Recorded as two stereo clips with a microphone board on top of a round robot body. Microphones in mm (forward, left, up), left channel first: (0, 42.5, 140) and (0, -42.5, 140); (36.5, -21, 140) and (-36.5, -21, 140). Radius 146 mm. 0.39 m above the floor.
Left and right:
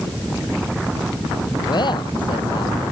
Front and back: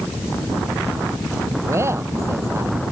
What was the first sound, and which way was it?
A man speaking, 125° left.